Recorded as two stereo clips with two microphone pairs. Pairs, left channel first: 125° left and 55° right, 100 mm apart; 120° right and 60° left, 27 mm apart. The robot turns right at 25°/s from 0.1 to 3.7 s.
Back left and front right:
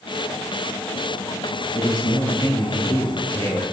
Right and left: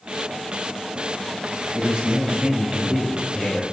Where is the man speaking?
100° left, 2.5 m; by 3.6 s 150° left, 2.5 m.